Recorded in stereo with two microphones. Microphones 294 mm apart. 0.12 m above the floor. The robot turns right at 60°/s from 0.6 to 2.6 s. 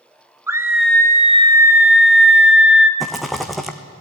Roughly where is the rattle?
Centre.